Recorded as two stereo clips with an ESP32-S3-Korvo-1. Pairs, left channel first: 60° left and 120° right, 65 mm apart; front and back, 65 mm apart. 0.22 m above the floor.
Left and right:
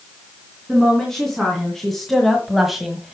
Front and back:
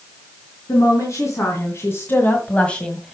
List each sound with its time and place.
0.7 s a woman speaking: 20° right, 3 m; by 3.1 s 75° right, 1.5 m